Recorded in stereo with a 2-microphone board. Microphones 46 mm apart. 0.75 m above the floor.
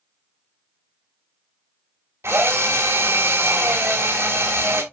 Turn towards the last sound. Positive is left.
turn(degrees=-80)